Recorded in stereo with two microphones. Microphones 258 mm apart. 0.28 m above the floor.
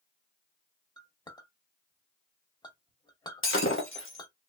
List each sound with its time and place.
1.0 s a clink: 15° left (ahead or behind), 0.5 m
3.4 s breaking glass: 55° left (ahead or behind), 1.0 m